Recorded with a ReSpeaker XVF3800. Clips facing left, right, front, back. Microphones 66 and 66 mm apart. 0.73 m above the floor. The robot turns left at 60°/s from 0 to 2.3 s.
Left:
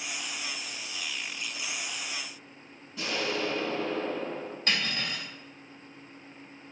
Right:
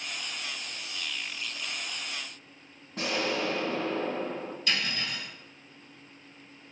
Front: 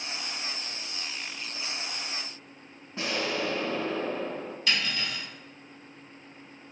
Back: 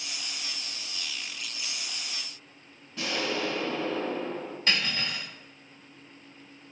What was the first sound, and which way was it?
An explosion, 60° right.